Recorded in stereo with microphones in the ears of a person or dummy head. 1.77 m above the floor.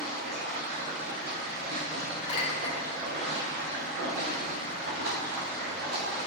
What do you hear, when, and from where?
0.0 s running water: 55° right (ahead or behind), 1.5 m
2.3 s a clink: 35° left (ahead or behind), 1.7 m